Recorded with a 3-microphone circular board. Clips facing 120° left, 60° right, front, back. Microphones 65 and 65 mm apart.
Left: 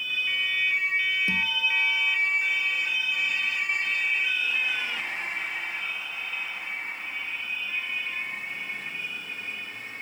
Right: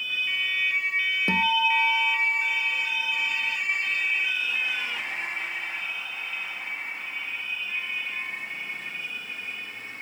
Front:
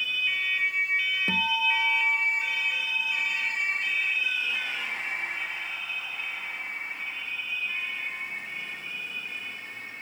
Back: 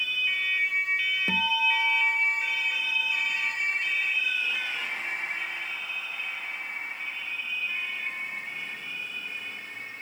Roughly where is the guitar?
Right.